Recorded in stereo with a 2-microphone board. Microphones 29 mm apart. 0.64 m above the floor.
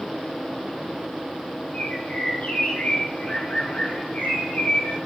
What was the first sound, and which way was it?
A bird, 70° left (ahead or behind).